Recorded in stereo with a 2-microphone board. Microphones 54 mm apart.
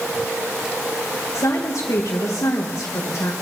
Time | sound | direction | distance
1.3 | a woman speaking | 80° left | 1.5 m